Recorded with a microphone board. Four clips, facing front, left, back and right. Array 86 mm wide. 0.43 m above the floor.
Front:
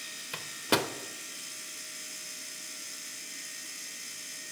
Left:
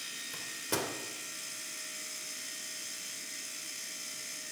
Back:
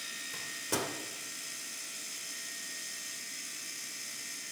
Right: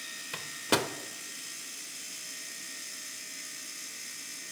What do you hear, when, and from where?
0.3 s a microwave: 45° right, 0.9 m